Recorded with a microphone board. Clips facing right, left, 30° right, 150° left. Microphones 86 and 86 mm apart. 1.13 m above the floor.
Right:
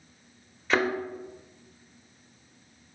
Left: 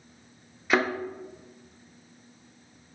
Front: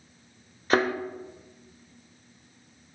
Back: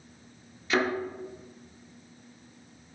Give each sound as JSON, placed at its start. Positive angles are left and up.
{"t": 0.7, "sound": "a thud", "azimuth_deg": 10, "distance_m": 1.0}